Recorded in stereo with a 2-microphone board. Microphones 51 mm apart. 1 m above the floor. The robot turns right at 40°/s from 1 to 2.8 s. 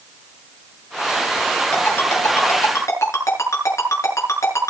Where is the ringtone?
35° left (ahead or behind), 7.5 m; by 4.7 s 75° left (ahead or behind), 7.5 m.